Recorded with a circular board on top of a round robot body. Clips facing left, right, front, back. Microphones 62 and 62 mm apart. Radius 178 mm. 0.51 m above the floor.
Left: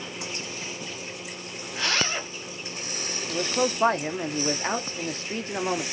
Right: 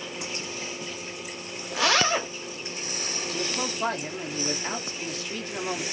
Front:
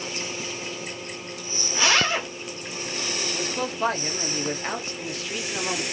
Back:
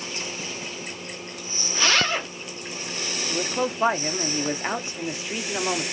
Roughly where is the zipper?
Right.